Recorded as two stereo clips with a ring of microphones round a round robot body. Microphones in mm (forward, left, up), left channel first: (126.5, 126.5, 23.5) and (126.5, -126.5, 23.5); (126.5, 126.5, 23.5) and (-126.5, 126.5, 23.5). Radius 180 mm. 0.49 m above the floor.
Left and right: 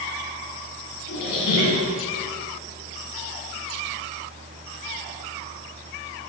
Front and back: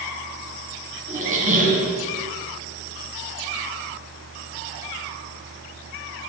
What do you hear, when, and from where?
1.1 s a squeak: 120° left, 1.8 m